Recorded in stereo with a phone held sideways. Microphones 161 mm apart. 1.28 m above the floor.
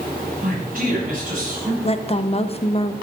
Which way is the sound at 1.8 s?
35° left (ahead or behind).